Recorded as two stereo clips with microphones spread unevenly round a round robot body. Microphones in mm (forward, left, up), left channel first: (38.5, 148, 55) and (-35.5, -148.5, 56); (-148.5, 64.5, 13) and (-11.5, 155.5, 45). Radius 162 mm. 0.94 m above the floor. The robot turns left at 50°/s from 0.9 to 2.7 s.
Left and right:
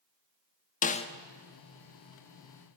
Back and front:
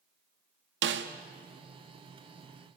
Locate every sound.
0.8 s a snare drum: 10° left, 1.5 m; by 1.1 s straight ahead, 1.5 m